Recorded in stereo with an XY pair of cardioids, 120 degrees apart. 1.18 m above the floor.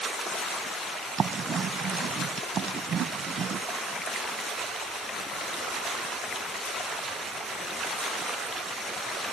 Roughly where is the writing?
Ahead right.